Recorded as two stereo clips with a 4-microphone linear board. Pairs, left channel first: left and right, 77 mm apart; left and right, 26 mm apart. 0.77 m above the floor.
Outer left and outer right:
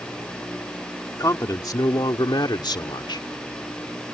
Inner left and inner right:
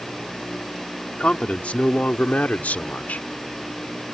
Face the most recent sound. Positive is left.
turn(degrees=70)  # may be behind; listen again after turning